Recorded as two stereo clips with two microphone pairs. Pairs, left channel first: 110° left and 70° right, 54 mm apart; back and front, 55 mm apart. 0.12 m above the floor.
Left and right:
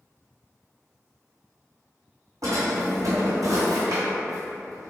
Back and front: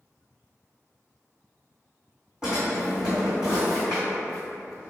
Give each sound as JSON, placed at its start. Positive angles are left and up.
{"t": 2.4, "sound": "a drawer", "azimuth_deg": -80, "distance_m": 1.5}